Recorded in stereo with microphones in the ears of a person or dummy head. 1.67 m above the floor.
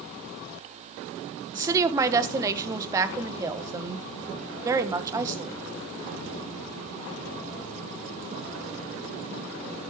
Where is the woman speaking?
20° right (ahead or behind), 1.2 m.